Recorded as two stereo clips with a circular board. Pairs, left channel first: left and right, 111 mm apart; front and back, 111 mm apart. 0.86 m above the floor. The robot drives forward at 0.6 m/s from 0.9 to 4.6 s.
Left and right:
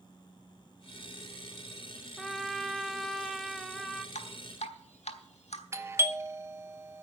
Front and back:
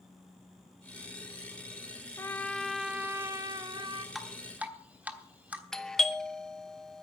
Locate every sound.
2.2 s a trumpet: 5° left, 0.8 m; by 4.0 s straight behind, 1.1 m
4.2 s dripping: 90° left, 1.1 m; by 5.6 s 105° left, 1.2 m
5.7 s a doorbell: 75° right, 0.8 m